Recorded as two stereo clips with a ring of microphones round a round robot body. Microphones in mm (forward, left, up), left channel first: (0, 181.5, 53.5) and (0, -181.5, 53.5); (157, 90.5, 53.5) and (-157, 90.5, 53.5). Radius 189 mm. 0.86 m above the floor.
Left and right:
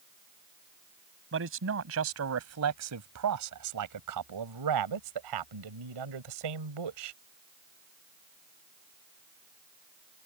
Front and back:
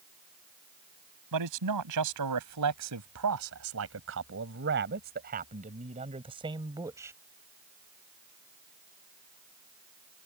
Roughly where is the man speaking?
Behind right.